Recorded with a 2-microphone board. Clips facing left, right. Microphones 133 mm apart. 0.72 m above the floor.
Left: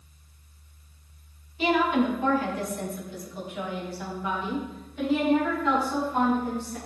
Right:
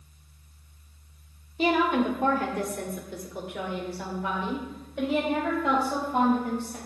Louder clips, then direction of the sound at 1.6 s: Even; 40° right (ahead or behind).